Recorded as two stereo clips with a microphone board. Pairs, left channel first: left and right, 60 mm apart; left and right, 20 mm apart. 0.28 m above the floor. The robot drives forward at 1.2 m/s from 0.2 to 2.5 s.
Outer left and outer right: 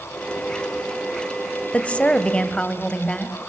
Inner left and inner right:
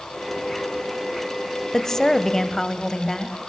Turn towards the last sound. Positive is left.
turn(degrees=15)  # may be behind; listen again after turning